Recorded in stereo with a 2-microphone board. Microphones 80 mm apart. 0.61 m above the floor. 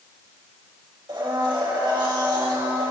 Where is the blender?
75° right (ahead or behind), 2.5 m.